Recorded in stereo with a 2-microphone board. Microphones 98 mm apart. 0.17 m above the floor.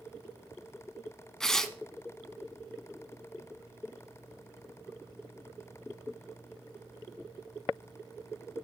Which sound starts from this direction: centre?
Tearing paper, at 1.4 s.